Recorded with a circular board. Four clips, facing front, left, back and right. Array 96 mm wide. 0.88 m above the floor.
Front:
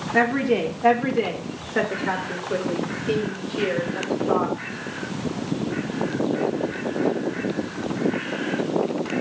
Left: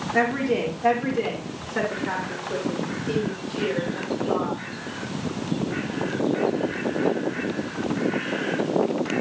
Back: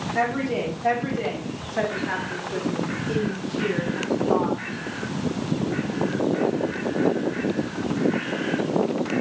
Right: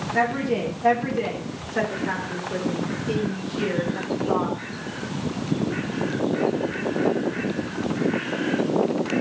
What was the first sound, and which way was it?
A woman speaking, 15° left.